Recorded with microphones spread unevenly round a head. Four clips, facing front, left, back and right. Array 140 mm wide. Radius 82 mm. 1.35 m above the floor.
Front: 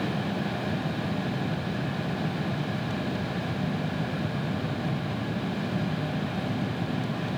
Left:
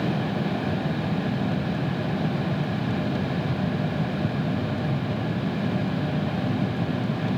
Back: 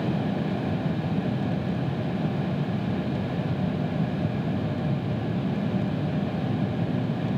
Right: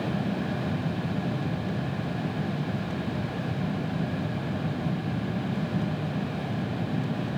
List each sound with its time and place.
Only background noise.